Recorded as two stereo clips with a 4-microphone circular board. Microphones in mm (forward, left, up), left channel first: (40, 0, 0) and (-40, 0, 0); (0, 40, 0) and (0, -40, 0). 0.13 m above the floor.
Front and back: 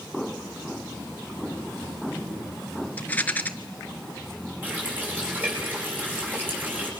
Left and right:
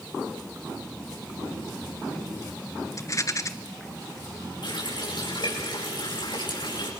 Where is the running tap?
115° left, 7.5 m.